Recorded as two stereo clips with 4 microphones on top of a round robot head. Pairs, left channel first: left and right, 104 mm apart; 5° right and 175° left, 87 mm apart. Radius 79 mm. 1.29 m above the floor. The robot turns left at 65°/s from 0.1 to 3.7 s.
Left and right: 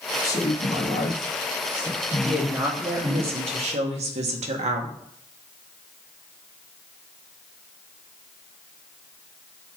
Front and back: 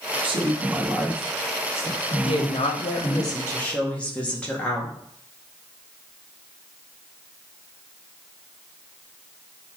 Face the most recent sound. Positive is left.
turn(degrees=-85)